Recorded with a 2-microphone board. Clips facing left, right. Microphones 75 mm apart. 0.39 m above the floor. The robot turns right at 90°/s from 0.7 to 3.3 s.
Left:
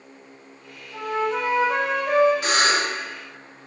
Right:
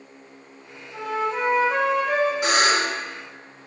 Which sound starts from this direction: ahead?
A flute, at 0.9 s.